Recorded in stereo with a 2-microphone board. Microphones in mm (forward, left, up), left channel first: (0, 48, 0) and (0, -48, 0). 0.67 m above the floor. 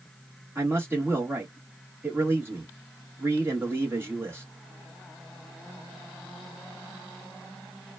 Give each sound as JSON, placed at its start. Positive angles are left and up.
{"t": 0.6, "sound": "a man speaking", "side_deg": -25, "distance_m": 1.2}